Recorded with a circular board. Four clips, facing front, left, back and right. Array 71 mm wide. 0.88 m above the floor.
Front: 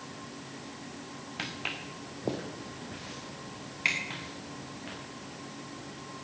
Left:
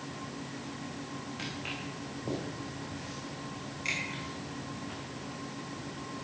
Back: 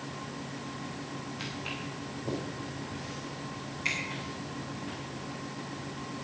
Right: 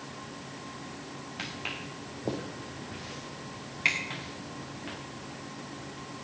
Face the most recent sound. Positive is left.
turn(degrees=-60)